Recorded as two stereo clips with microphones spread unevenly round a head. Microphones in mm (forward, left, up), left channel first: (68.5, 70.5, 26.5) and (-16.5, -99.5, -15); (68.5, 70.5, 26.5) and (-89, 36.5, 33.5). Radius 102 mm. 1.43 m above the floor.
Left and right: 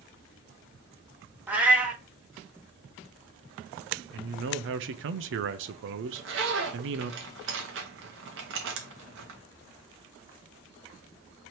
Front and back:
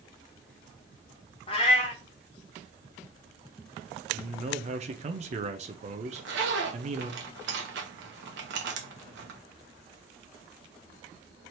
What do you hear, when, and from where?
1.5 s a cat meowing: 20° right, 0.8 m
4.1 s a man speaking: 115° right, 0.5 m
6.1 s a zipper: 145° right, 0.9 m